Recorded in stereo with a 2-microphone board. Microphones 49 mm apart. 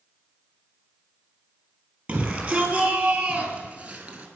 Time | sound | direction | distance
2.1 | a shout | 20° right (ahead or behind) | 5.5 m